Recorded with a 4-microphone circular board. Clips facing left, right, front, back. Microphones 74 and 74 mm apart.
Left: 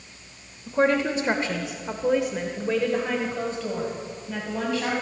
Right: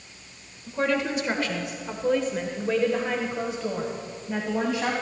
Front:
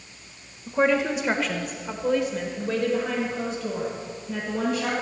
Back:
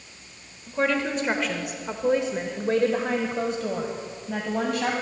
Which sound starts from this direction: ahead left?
A woman speaking, at 0.7 s.